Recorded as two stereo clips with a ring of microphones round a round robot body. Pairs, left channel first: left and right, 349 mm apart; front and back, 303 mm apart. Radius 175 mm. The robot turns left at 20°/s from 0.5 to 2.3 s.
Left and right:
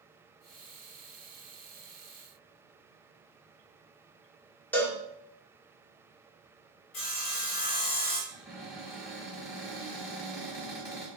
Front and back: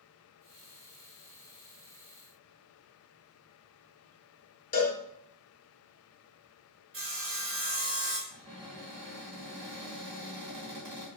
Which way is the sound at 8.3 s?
Straight behind.